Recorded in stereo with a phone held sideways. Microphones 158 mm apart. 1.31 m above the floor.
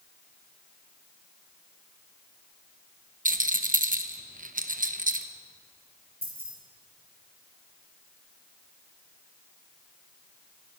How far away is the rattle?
About 0.9 m.